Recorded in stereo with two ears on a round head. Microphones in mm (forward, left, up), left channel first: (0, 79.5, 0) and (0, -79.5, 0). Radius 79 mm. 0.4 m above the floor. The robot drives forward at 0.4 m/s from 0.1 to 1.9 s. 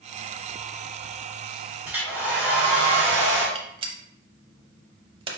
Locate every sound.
1.9 s a hair dryer: 10° right (ahead or behind), 1.8 m
3.5 s a gunshot: 30° right (ahead or behind), 0.8 m